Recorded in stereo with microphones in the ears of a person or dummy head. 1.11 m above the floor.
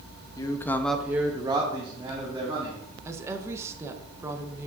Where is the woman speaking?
5° right (ahead or behind), 0.7 m.